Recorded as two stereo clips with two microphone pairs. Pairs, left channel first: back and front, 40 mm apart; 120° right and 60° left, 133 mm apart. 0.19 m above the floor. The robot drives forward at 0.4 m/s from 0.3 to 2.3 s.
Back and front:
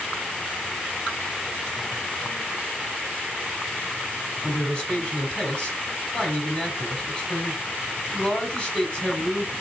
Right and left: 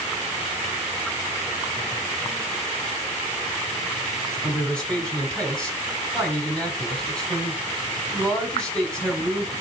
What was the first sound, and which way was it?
A man speaking, 165° left.